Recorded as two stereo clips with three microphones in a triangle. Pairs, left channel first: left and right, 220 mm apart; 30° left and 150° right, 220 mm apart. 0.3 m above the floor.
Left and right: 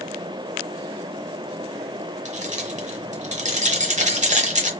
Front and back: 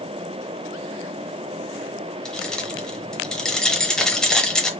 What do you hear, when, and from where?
2.2 s keys jangling: 55° right, 0.8 m